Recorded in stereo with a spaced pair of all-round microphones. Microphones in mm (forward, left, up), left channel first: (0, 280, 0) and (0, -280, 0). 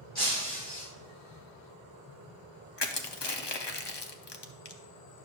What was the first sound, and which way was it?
Breaking glass, 65° left (ahead or behind).